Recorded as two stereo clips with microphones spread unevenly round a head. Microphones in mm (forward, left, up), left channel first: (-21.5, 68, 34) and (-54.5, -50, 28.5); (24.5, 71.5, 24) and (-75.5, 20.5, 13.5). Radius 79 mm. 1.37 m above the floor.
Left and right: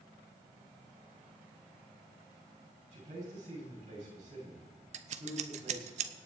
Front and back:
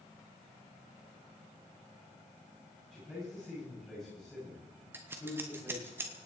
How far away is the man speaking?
About 8.5 m.